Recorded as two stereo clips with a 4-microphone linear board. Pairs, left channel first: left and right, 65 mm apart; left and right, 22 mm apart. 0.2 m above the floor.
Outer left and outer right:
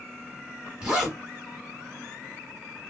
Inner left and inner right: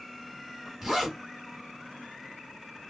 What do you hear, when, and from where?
0.8 s a zipper: 15° right (ahead or behind), 1.2 m